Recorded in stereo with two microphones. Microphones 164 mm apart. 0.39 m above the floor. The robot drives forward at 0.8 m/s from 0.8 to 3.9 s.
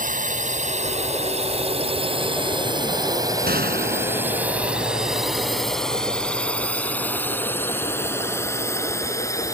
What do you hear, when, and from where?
0.0 s a drone: 55° right (ahead or behind); by 9.6 s 20° left (ahead or behind)
3.5 s a gunshot: 80° right; by 4.5 s 75° right (ahead or behind)